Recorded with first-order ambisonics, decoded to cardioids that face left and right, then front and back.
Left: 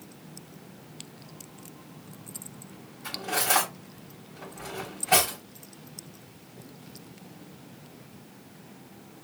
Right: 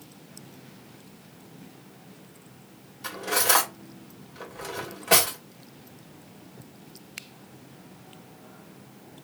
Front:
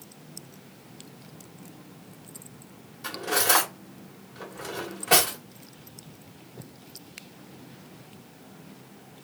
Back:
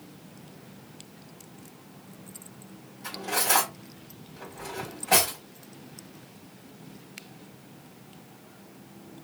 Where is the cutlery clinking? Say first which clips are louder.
Right 3 dB, front 3 dB; 55° right, 1.9 m.